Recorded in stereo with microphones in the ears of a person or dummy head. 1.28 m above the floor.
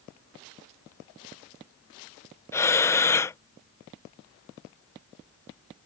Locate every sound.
2.5 s breathing: 10° left (ahead or behind)